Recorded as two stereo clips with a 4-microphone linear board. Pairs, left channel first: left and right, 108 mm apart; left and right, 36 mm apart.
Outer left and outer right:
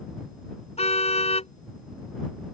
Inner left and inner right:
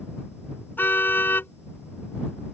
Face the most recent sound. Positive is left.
turn(degrees=75)  # may be behind; listen again after turning